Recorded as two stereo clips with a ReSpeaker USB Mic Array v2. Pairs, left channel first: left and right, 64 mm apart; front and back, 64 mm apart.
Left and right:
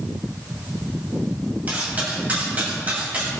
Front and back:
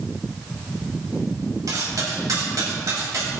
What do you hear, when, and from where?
1.7 s cutlery clinking: 155° right, 5 m